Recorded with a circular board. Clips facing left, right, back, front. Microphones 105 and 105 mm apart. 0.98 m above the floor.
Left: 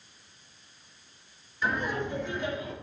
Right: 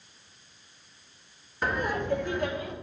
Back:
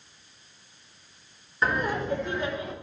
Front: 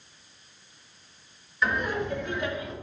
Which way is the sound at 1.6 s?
130° right.